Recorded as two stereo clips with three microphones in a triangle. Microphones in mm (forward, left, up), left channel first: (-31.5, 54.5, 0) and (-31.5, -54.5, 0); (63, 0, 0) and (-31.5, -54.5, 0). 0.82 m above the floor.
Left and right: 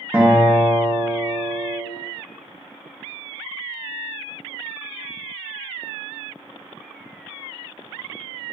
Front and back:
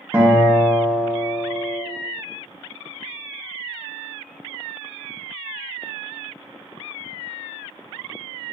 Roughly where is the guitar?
Behind right.